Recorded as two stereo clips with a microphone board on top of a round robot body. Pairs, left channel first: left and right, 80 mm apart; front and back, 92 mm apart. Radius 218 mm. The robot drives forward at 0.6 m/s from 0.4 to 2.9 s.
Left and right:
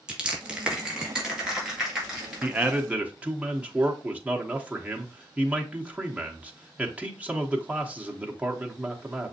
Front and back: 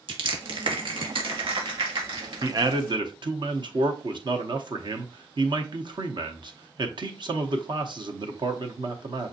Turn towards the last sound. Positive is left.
turn(degrees=-160)